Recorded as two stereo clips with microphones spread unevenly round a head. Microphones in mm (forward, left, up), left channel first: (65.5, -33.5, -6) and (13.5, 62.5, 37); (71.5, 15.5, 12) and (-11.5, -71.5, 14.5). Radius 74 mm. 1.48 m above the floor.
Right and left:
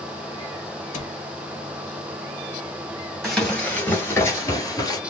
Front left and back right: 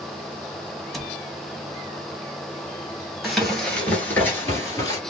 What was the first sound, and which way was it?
A cupboard door, 45° right.